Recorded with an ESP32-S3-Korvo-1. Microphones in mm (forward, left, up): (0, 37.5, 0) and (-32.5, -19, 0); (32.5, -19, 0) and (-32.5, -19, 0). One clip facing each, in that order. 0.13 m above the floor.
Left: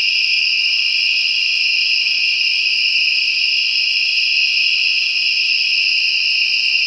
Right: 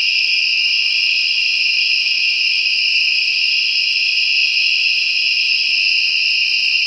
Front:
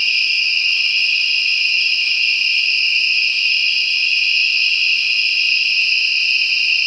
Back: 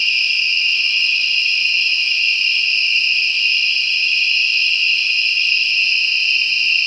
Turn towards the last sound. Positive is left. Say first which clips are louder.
# even, even
turn(degrees=5)